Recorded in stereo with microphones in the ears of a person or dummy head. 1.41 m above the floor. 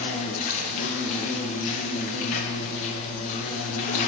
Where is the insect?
40° left (ahead or behind), 0.9 m.